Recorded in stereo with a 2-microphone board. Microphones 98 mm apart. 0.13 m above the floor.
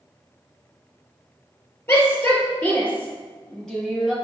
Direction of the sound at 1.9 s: 25° left (ahead or behind).